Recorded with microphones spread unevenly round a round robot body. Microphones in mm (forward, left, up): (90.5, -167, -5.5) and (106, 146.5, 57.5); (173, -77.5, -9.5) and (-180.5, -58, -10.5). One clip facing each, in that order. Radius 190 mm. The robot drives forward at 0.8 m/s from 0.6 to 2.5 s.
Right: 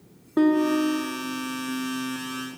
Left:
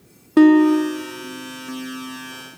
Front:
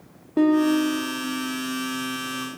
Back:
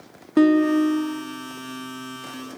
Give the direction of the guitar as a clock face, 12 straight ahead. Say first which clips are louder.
Left 8 dB, back 2 dB; 8 o'clock.